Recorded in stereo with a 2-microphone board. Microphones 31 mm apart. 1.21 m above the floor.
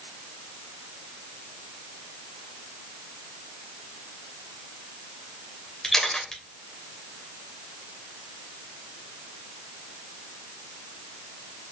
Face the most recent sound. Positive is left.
turn(degrees=20)  # may be behind; listen again after turning